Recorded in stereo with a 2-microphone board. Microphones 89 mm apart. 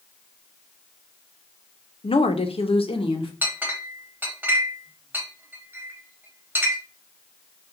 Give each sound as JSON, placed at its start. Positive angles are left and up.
{"t": 2.0, "sound": "a woman speaking", "side_deg": 70, "distance_m": 0.5}
{"t": 3.4, "sound": "a clink", "side_deg": -20, "distance_m": 1.0}